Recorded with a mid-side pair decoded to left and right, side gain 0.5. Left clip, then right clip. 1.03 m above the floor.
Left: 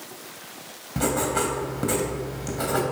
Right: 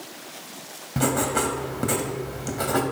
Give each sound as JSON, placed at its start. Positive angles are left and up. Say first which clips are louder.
{"t": 1.0, "sound": "writing", "louder": "right 1 dB", "azimuth_deg": -15, "distance_m": 2.5}